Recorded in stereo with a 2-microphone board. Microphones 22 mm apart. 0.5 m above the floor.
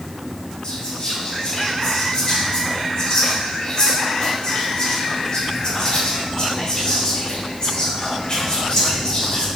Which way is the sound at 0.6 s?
50° left (ahead or behind).